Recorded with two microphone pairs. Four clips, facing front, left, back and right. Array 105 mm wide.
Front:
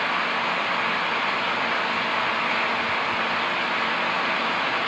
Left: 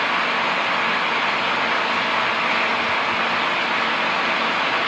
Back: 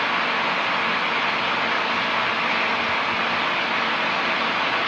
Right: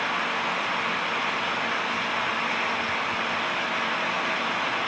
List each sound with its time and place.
Only background noise.